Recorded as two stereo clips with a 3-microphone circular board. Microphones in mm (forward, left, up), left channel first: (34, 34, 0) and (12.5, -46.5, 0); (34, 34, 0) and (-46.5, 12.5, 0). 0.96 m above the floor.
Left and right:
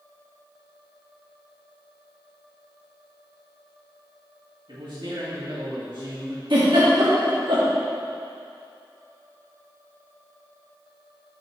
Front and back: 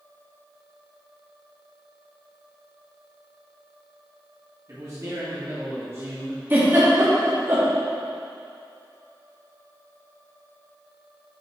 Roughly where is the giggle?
Right.